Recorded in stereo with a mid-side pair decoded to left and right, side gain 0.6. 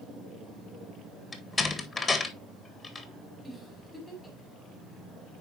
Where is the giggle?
Straight ahead, 4.5 m.